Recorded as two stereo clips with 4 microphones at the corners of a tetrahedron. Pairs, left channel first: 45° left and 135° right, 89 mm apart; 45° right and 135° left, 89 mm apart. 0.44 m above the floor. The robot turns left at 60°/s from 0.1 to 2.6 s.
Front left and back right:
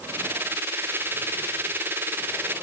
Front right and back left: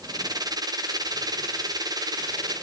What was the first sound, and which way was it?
Only background noise.